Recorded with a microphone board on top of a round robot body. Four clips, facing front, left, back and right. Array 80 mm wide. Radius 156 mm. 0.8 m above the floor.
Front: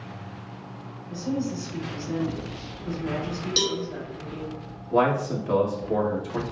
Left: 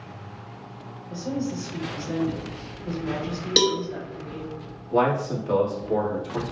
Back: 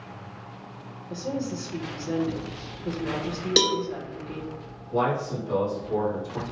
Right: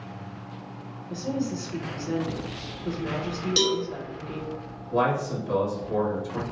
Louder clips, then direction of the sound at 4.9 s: Left 2 dB, front 3 dB; 30° left.